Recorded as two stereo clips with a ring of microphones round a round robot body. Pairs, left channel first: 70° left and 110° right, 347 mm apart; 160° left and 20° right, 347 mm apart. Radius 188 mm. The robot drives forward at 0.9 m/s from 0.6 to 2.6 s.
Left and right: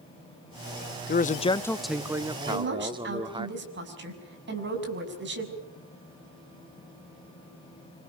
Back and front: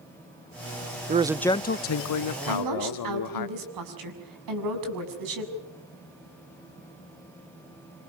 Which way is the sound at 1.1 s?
25° left.